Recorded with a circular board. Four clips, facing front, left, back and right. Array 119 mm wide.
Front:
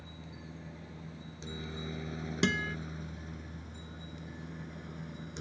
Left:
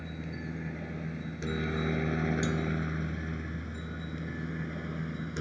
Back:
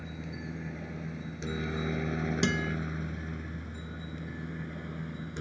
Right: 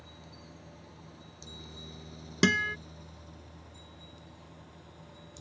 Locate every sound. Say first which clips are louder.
0.0 s a helicopter: left 12 dB, back 8 dB; 125° left; by 5.4 s 110° left
2.4 s a guitar: right 3 dB, front 1 dB; 85° right